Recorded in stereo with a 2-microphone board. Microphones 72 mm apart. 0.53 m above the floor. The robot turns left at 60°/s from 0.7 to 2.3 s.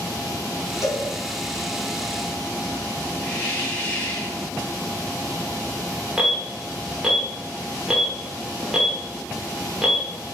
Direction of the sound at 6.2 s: 10° right (ahead or behind).